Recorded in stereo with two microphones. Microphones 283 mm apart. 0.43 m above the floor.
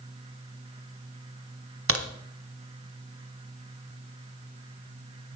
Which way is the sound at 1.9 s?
55° right (ahead or behind).